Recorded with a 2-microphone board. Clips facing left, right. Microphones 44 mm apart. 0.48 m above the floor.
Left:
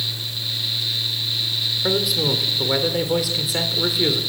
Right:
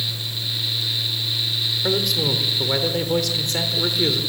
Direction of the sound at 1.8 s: 5° left (ahead or behind).